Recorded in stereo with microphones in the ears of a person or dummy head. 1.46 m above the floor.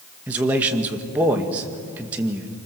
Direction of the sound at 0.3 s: 10° right (ahead or behind).